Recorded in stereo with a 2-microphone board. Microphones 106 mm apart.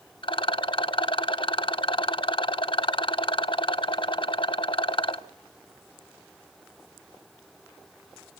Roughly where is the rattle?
Left.